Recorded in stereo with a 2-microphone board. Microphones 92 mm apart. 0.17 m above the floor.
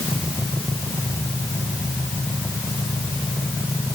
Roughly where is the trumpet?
No trumpet in this recording.